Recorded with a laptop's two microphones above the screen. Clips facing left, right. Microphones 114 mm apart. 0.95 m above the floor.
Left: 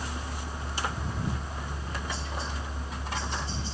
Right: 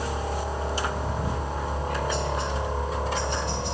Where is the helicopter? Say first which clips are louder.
Right 9 dB; 70° right (ahead or behind).